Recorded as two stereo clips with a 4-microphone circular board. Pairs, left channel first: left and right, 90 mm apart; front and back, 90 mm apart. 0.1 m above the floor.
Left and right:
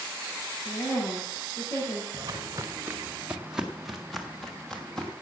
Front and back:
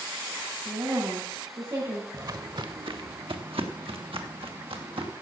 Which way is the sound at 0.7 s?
140° left.